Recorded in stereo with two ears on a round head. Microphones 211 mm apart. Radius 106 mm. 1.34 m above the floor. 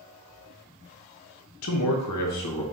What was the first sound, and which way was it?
A man speaking, 65° left (ahead or behind).